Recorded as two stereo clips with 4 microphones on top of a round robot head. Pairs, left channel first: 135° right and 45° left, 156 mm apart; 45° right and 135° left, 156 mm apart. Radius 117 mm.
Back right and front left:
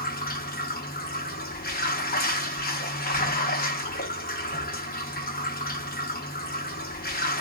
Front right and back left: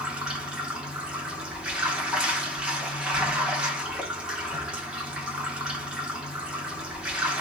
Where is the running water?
140° right, 1.2 m.